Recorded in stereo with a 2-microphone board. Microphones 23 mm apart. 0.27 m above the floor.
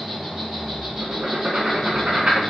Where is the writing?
55° right (ahead or behind), 0.9 m.